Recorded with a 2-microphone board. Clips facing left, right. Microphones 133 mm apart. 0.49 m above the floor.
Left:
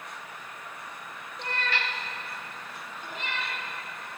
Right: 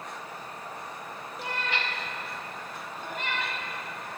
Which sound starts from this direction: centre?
A cat meowing, at 1.4 s.